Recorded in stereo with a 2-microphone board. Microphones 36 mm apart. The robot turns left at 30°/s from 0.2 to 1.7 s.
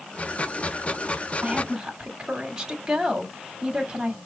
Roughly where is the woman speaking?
Right.